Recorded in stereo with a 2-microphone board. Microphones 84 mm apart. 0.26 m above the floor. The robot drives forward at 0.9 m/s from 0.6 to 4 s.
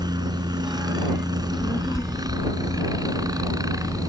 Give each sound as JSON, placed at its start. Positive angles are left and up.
{"t": 0.0, "sound": "a helicopter", "side_deg": -55}
{"t": 1.3, "sound": "a child speaking", "side_deg": 35}